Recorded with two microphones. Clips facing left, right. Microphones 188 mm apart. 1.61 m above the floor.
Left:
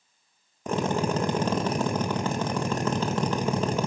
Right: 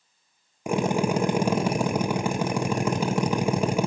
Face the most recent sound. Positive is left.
turn(degrees=-10)  # may be behind; listen again after turning